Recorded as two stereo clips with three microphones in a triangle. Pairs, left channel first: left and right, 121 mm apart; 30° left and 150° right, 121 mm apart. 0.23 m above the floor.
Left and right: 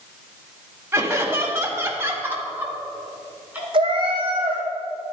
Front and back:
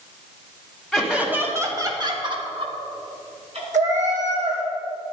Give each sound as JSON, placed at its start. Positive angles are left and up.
{"t": 0.9, "sound": "laughter", "azimuth_deg": -60, "distance_m": 1.6}
{"t": 3.7, "sound": "a cat meowing", "azimuth_deg": -140, "distance_m": 3.0}